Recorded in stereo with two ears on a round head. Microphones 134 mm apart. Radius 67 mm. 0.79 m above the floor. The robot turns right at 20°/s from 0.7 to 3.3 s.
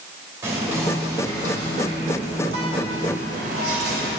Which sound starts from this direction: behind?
Whispering, at 0.4 s.